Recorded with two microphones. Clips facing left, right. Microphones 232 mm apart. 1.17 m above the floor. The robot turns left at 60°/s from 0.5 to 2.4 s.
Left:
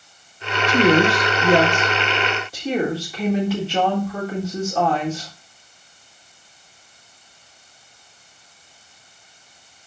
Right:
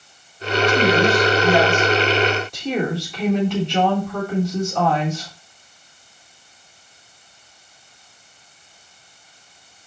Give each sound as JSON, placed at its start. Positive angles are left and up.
{"t": 0.7, "sound": "a woman speaking", "azimuth_deg": 110, "distance_m": 3.5}